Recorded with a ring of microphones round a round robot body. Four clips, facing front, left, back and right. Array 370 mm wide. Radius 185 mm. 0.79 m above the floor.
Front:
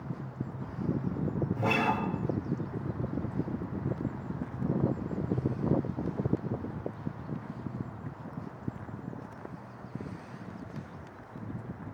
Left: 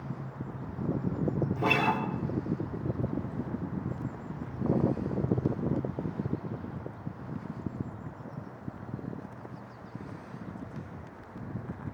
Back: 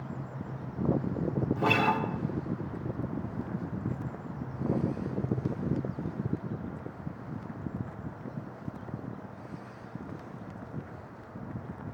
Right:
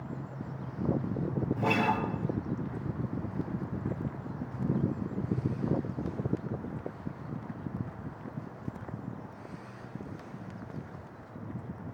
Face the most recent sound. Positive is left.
turn(degrees=140)